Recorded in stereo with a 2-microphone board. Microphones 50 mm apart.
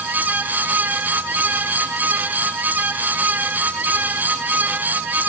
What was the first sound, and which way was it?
Only background noise.